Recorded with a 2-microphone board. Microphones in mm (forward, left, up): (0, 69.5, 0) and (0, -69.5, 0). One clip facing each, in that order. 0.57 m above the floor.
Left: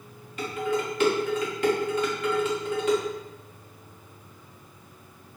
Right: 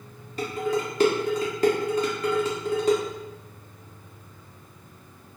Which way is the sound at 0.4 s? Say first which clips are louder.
Right 1 dB; 40° right (ahead or behind).